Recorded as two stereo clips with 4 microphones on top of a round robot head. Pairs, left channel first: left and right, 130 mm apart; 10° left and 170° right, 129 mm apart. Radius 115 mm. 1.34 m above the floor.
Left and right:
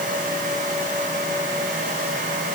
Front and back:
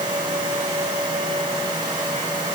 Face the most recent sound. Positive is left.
No sound to turn to.